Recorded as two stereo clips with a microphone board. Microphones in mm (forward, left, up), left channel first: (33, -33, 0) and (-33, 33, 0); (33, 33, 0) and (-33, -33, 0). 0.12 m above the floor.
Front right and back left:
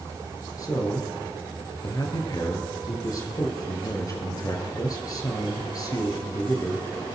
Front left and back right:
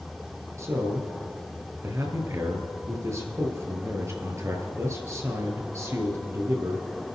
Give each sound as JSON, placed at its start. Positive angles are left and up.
{"t": 0.6, "sound": "a man speaking", "azimuth_deg": -85, "distance_m": 2.0}